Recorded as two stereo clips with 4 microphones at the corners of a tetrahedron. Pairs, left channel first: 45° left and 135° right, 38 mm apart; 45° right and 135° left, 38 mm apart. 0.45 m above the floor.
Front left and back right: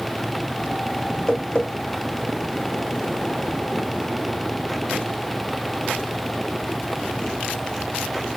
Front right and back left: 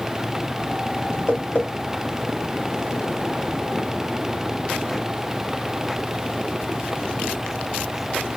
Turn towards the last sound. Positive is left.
turn(degrees=-10)